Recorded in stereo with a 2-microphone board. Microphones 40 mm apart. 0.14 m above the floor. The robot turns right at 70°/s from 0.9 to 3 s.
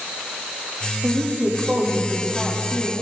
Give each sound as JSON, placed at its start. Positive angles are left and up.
{"t": 1.0, "sound": "a woman speaking", "azimuth_deg": -75, "distance_m": 8.0}